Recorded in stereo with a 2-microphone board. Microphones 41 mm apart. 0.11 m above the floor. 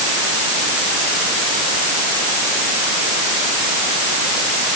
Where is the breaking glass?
No breaking glass in this recording.